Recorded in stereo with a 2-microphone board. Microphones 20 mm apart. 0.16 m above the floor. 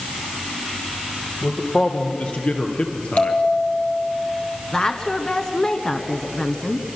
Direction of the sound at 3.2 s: 60° left (ahead or behind).